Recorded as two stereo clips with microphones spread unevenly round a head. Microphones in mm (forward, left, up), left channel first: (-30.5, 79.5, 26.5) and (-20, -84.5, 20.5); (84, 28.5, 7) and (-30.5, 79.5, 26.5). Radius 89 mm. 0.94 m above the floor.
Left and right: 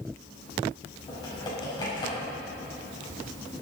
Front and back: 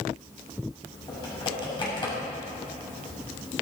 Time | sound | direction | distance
1.1 | typing on a keyboard | 25° left | 7.5 m